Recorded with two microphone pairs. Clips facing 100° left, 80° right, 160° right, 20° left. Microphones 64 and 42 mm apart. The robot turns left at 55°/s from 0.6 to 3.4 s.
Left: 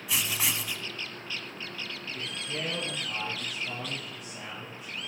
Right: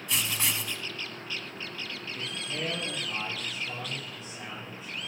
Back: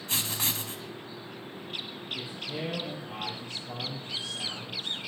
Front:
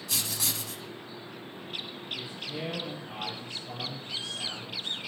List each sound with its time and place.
0.1 s writing: straight behind, 1.1 m; by 0.8 s 170° left, 1.1 m
2.1 s a man speaking: 155° left, 5 m; by 5.0 s 85° left, 5 m